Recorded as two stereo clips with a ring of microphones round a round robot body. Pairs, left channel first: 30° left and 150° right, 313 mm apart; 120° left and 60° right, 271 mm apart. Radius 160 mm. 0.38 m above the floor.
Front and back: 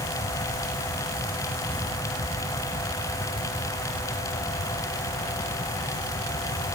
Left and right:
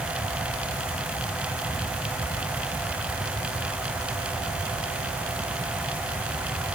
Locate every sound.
Only background noise.